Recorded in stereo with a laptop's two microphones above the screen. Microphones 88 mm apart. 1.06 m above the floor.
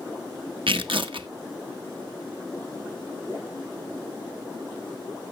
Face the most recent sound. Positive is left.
turn(degrees=-80)